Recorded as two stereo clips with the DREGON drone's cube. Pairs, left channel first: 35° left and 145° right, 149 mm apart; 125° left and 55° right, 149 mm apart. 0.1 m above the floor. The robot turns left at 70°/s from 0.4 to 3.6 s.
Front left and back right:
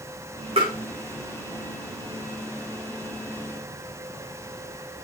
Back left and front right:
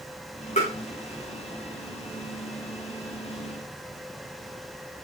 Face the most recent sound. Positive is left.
turn(degrees=-45)